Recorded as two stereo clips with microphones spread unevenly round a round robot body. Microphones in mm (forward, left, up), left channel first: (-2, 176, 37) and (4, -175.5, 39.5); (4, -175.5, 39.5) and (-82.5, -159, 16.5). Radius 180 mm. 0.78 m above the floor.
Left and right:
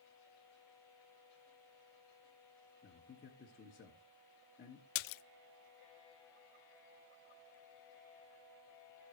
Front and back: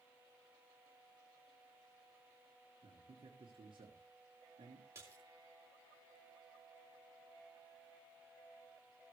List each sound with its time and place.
2.8 s a man speaking: 155° left, 1.6 m
5.0 s a splash: 85° left, 0.5 m